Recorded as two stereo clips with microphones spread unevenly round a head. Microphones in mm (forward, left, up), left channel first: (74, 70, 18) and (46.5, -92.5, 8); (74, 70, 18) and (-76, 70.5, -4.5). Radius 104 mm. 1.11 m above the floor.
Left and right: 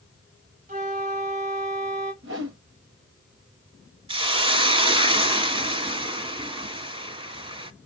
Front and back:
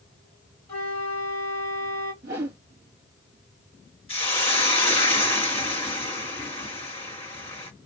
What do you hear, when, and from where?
0.7 s a flute: 65° right, 1.8 m
2.2 s a whoosh: 130° right, 0.8 m
4.1 s a hiss: 45° right, 1.6 m